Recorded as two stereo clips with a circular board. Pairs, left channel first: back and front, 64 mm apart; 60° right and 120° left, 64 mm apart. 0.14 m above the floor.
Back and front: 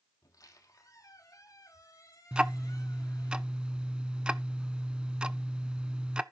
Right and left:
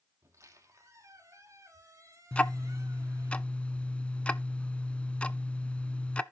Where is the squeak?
160° left, 1.9 m.